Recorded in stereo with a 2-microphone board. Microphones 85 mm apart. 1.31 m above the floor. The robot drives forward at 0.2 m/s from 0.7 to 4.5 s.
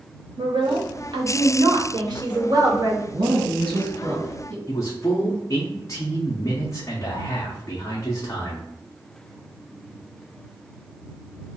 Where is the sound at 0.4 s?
75° right (ahead or behind), 0.8 m; by 3.0 s 50° right (ahead or behind), 1.0 m.